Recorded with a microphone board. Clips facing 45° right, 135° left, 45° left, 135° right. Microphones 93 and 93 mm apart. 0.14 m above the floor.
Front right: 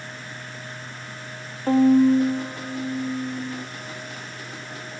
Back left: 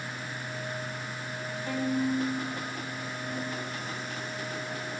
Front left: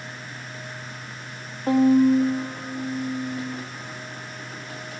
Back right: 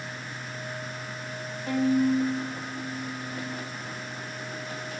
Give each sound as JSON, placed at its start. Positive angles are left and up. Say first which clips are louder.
{"t": 1.7, "sound": "a violin", "louder": "front right 14 dB, front left 7 dB", "azimuth_deg": 0, "distance_m": 2.5}